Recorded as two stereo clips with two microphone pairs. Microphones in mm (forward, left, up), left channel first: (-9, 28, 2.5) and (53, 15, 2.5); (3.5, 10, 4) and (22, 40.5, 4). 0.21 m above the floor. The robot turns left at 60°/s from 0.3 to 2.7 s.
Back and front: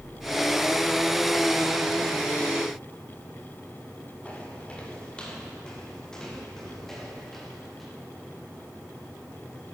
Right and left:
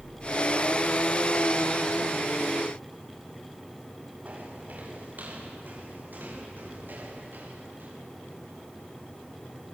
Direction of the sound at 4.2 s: 100° left.